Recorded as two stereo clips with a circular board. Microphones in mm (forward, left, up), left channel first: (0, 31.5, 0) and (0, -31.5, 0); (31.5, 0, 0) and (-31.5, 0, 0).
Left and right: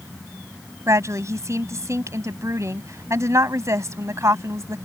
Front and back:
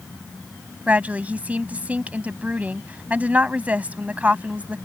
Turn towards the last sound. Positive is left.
turn(degrees=-115)